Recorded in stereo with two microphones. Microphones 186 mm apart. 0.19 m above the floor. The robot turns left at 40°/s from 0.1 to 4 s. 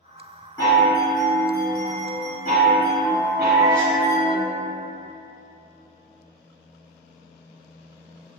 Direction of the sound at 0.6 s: 160° left.